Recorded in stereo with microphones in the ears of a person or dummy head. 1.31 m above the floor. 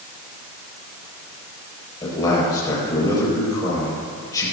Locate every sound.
2.0 s a man speaking: 15° left (ahead or behind), 6 m